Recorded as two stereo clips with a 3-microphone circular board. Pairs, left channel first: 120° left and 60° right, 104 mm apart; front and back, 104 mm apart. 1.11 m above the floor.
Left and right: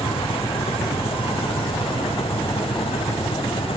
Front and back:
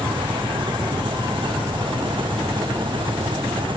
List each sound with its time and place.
0.0 s an engine running: 140° left